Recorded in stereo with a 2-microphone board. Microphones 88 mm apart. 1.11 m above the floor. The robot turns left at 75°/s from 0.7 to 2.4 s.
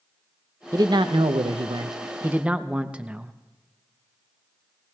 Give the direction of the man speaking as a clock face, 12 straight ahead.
1 o'clock.